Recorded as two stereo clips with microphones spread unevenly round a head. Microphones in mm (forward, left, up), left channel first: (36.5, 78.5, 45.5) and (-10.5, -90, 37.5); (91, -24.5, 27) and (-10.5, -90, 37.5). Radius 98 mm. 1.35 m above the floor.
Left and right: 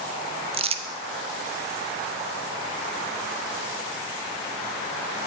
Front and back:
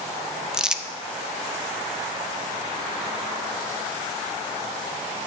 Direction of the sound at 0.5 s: 60° right.